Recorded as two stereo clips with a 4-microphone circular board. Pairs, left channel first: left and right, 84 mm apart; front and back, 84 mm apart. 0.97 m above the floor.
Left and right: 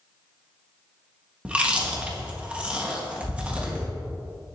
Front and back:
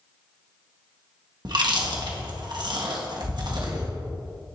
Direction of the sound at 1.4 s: 165° right.